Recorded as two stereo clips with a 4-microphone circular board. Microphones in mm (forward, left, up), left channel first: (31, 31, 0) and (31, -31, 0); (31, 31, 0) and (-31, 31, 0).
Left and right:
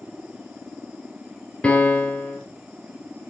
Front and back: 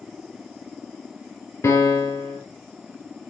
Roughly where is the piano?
Ahead left.